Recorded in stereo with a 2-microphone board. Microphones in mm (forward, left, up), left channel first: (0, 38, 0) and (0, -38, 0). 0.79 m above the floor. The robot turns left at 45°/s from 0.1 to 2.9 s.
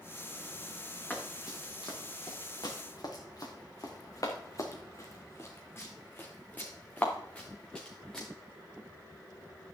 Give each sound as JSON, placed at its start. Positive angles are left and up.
{"t": 1.1, "sound": "running footsteps", "side_deg": 20, "distance_m": 3.5}